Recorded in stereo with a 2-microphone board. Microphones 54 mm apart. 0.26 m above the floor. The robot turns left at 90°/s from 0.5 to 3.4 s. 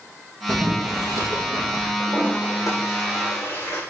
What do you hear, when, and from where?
0.5 s boiling: 20° right, 5.5 m; by 1.9 s 145° right, 5.5 m
2.0 s a toilet flushing: 165° left, 9.5 m; by 3.8 s 40° left, 9.5 m